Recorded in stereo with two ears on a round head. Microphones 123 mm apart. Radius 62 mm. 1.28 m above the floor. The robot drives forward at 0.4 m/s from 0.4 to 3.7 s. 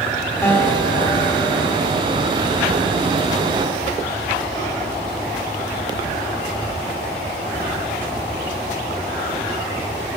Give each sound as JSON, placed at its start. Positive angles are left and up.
{"t": 0.4, "sound": "a guitar", "side_deg": 20, "distance_m": 1.7}